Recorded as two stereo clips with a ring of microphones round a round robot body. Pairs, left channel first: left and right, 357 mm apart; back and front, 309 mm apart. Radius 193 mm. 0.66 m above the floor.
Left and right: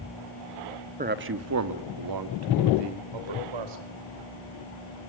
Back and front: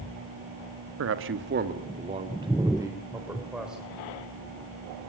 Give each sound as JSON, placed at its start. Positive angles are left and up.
{"t": 1.0, "sound": "a man speaking", "azimuth_deg": -25, "distance_m": 1.6}